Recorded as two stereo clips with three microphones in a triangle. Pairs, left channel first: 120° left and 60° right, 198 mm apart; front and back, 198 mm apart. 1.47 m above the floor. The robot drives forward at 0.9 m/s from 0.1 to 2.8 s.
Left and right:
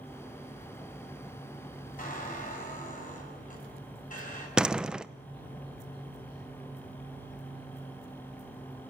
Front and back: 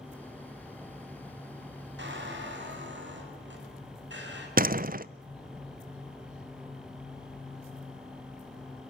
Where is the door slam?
145° right, 0.6 m.